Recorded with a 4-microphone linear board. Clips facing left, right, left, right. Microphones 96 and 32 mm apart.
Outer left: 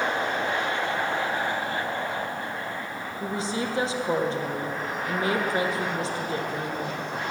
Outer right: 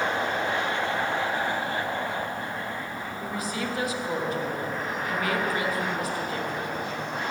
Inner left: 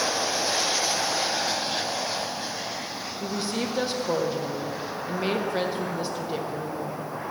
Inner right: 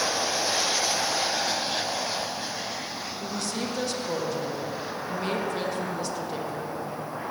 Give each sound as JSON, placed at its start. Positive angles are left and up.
{"t": 3.2, "sound": "a woman speaking", "side_deg": 25, "distance_m": 1.1}